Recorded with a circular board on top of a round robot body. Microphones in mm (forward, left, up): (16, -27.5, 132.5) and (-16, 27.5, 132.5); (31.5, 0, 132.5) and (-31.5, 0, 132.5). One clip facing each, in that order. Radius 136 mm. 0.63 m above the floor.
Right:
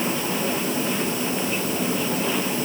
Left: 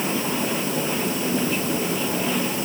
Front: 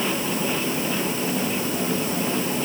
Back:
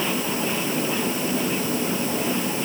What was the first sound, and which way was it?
Only background noise.